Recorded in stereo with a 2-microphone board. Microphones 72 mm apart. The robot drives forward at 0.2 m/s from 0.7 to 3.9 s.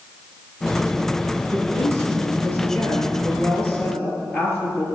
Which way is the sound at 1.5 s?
25° left (ahead or behind).